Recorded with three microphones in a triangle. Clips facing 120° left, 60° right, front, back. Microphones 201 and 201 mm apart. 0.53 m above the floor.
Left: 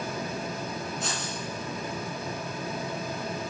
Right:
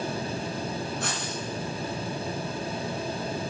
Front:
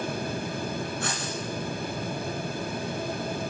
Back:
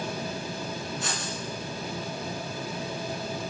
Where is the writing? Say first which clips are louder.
Right 1 dB, front 2 dB; 30° right, 3 m.